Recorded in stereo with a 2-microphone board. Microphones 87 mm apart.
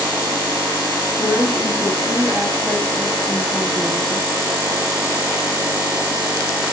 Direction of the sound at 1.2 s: 30° right (ahead or behind).